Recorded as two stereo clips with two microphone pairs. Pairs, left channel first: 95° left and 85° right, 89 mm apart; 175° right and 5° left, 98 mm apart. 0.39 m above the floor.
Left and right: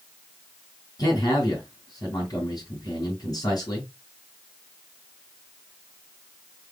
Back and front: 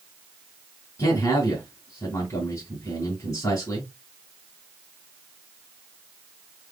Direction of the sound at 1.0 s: 125° left.